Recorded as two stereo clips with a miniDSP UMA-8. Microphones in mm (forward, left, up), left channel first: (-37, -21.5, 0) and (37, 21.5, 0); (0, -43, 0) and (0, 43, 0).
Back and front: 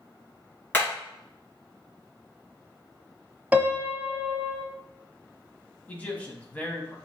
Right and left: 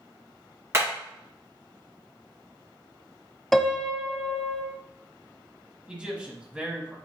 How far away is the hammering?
About 2.5 m.